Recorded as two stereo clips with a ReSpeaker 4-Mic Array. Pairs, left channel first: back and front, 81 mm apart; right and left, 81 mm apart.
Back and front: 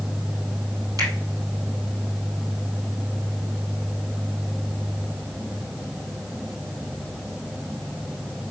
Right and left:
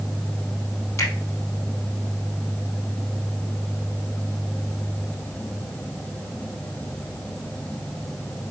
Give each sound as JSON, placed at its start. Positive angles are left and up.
{"t": 1.0, "sound": "a finger snap", "azimuth_deg": -40, "distance_m": 3.5}